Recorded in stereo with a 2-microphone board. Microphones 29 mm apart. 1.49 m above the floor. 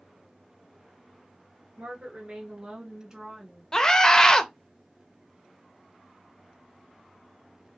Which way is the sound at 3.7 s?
30° left (ahead or behind).